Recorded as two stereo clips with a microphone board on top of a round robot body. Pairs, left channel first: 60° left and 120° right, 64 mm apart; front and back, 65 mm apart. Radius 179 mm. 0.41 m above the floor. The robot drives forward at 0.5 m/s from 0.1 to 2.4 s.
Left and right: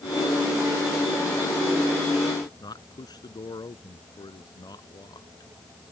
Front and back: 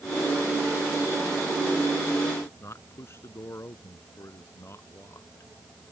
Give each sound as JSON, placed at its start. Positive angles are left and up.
{"t": 2.6, "sound": "a man speaking", "azimuth_deg": 50}